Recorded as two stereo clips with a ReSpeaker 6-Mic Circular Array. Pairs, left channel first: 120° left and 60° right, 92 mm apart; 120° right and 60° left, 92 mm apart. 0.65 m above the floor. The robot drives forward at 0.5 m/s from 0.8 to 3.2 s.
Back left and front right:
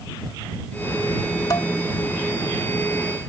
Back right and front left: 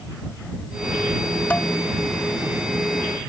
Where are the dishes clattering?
165° left; by 1.7 s 170° left.